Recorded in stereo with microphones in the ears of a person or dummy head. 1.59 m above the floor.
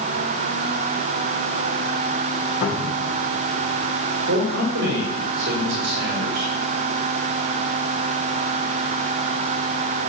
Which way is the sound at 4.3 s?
75° right (ahead or behind).